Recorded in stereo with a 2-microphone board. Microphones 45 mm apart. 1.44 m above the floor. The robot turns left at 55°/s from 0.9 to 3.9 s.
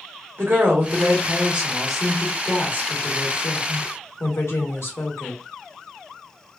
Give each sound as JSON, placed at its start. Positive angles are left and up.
{"t": 0.4, "sound": "a woman speaking", "azimuth_deg": -125, "distance_m": 1.1}